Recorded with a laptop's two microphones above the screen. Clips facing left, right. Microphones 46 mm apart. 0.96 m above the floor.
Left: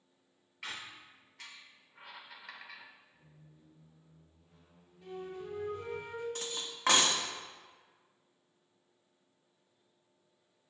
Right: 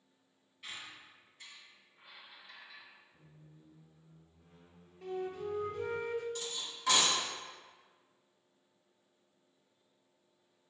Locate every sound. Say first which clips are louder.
0.6 s a squeak: left 3 dB; 80° left, 0.7 m
3.1 s a squeak: right 1 dB; 50° right (ahead or behind), 0.7 m
5.0 s a flute: right 4 dB; 75° right (ahead or behind), 1.1 m
6.3 s cutlery clinking: left 1 dB; 45° left (ahead or behind), 0.7 m